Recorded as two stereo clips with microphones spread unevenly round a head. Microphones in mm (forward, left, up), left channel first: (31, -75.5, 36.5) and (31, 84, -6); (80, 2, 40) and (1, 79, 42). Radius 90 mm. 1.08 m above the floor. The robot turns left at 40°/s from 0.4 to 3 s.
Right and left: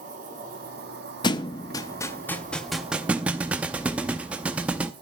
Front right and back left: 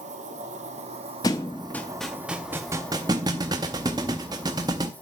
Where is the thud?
100° right, 0.5 m; by 4.9 s 170° right, 0.5 m.